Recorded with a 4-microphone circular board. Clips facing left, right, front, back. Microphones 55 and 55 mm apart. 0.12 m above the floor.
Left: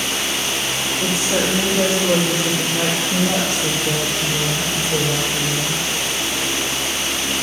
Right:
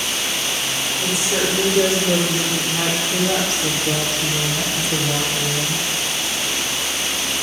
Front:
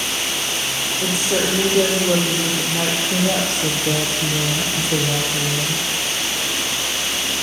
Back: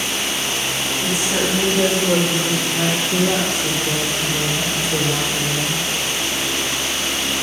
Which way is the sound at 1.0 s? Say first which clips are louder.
Left 1 dB, front 1 dB; 35° left.